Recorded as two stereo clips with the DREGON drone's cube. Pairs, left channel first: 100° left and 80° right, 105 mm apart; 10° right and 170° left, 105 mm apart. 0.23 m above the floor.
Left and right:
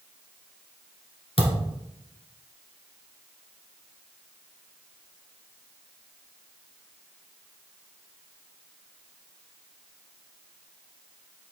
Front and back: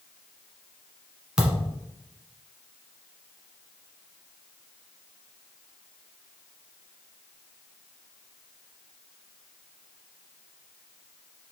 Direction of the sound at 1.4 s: 90° left.